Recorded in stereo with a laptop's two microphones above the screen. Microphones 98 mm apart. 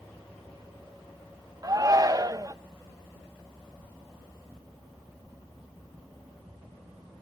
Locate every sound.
1.6 s a shout: 35° right (ahead or behind), 0.8 m